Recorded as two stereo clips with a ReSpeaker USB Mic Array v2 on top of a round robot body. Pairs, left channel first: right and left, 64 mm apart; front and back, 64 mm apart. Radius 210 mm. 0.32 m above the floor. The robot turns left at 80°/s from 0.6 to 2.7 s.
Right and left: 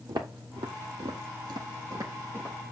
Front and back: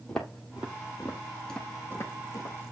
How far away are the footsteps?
About 0.7 m.